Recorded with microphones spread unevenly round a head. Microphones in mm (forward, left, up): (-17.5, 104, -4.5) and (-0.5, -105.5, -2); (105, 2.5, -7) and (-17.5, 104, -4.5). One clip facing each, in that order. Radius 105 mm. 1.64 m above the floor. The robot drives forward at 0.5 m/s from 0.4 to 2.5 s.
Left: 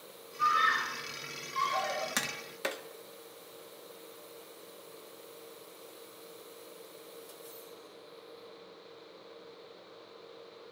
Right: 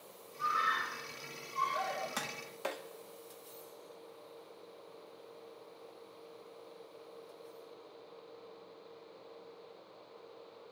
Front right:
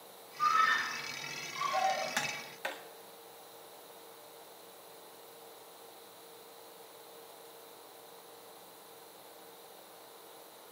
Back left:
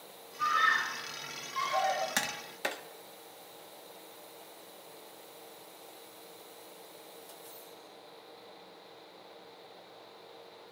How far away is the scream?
About 9 m.